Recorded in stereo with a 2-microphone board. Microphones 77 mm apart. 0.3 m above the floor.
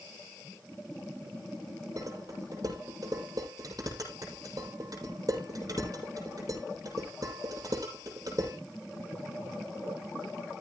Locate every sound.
2.0 s dishes clattering: 50° right (ahead or behind), 6.5 m